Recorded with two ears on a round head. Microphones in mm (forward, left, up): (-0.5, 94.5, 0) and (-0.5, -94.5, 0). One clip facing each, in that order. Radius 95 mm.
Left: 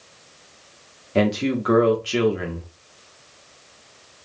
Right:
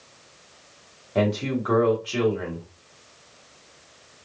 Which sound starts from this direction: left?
A man speaking, at 1.1 s.